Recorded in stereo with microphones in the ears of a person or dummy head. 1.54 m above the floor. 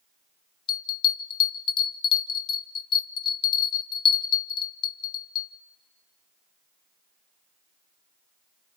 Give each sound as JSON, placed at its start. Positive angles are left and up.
{"t": 0.7, "sound": "a bell", "side_deg": 25, "distance_m": 0.6}